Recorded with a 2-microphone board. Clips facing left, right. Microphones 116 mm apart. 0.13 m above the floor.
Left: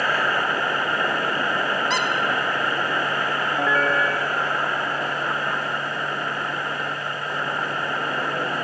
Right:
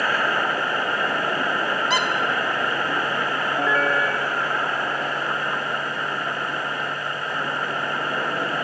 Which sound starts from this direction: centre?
A squeak, at 1.9 s.